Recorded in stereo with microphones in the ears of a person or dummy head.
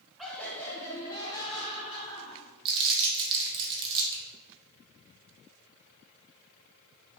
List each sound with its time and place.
0.2 s laughter: 5° left (ahead or behind), 1.0 m; by 2.5 s 30° left (ahead or behind), 2 m
2.6 s crumpling: 25° right (ahead or behind), 0.9 m